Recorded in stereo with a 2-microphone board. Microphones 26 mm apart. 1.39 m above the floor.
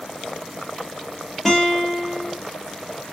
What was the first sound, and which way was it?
A guitar, 5° left (ahead or behind).